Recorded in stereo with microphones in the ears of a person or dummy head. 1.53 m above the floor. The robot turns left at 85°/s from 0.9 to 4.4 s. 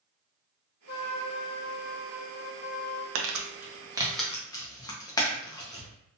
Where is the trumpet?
90° left, 1.3 m; by 3.0 s 95° right, 1.3 m.